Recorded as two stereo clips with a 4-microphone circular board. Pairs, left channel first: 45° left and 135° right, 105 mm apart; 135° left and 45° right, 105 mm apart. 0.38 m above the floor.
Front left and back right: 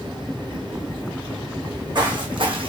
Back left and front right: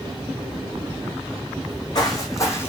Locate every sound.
1.6 s footsteps: straight behind, 1.3 m; by 2.7 s 160° right, 0.8 m